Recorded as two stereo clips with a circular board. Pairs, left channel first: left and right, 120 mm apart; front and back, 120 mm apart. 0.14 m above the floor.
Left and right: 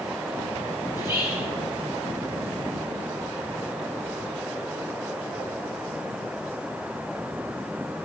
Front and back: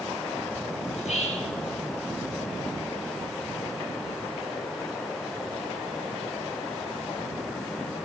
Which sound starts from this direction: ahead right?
Whispering, at 0.9 s.